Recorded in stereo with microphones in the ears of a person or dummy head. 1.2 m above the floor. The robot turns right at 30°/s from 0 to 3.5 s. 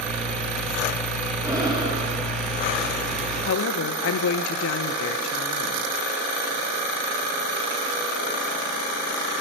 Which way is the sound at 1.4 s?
10° right (ahead or behind).